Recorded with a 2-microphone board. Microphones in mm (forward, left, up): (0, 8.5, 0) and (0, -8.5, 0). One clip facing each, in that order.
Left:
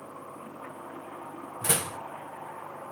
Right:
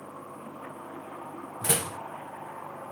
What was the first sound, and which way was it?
A door slam, centre (ahead or behind).